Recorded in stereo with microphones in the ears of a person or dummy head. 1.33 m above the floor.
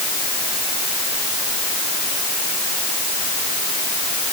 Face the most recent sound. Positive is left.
No sound to turn to.